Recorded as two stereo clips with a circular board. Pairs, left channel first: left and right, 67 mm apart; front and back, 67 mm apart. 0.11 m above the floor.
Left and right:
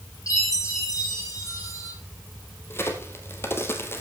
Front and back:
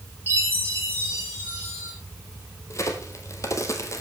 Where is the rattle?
No rattle in this recording.